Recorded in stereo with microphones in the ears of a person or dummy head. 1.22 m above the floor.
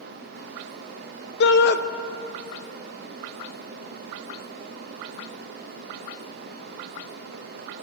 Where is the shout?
65° left (ahead or behind), 0.6 m.